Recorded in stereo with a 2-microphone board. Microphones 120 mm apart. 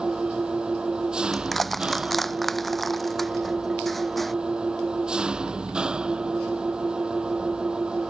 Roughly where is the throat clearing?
I don't hear throat clearing.